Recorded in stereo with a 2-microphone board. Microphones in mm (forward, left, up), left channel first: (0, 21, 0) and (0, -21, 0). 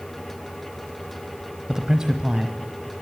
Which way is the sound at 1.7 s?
10° right (ahead or behind).